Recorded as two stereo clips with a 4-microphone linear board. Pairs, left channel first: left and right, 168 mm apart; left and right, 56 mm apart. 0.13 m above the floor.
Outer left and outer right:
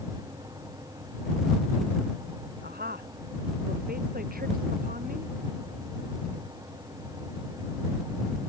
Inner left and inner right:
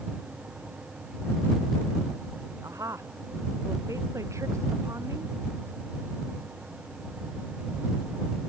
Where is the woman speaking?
70° right (ahead or behind); by 5.3 s 55° right (ahead or behind).